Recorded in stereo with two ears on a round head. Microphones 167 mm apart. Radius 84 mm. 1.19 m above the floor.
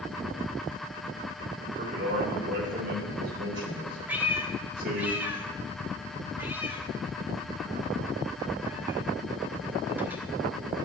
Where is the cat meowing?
10° right (ahead or behind), 1.3 m.